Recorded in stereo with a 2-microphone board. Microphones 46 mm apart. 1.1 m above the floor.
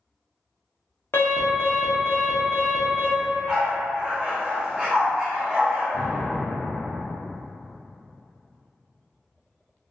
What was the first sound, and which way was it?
An alarm, 55° left (ahead or behind).